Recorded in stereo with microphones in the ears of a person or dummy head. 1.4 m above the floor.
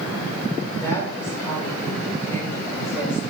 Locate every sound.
0.8 s a woman speaking: 15° left (ahead or behind), 5.5 m